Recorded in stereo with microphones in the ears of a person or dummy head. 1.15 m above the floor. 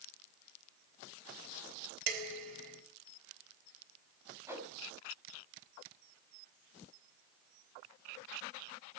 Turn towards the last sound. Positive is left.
turn(degrees=-15)  # may be behind; listen again after turning